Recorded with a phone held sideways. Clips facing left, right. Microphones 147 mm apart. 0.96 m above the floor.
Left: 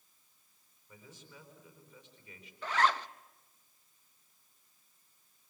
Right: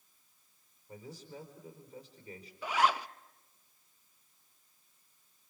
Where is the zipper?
10° right (ahead or behind), 0.5 m.